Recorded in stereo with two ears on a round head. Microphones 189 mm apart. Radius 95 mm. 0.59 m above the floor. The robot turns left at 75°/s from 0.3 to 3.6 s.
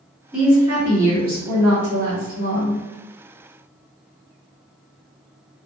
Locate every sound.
0.3 s a woman speaking: straight ahead, 1.6 m; by 2.8 s 170° left, 1.6 m